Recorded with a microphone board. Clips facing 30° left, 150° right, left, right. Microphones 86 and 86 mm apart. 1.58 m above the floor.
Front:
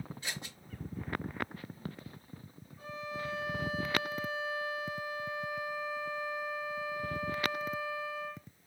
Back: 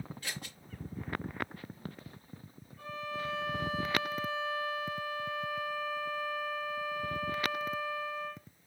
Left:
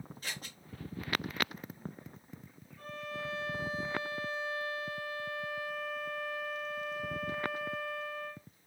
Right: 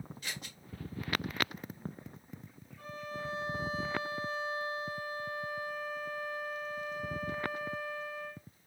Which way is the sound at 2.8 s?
100° left.